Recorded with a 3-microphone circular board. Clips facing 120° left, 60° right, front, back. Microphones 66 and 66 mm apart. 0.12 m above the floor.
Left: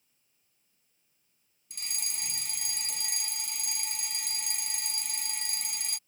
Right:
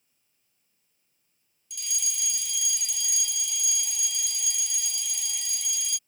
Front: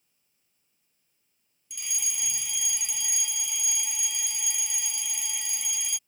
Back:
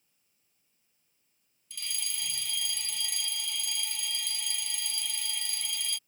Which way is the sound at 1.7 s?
75° left.